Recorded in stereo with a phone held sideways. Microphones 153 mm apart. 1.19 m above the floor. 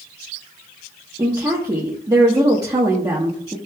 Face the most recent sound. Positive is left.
turn(degrees=-25)  # may be behind; listen again after turning